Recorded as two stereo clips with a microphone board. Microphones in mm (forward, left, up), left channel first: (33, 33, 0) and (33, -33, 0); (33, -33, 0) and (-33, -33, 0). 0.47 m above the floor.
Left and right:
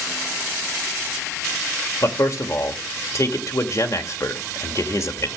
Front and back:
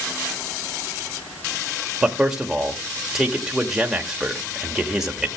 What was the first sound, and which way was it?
A man speaking, 100° left.